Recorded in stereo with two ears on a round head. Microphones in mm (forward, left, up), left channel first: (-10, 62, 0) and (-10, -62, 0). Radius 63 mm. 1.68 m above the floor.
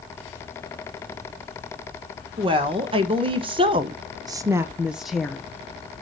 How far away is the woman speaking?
About 1.4 m.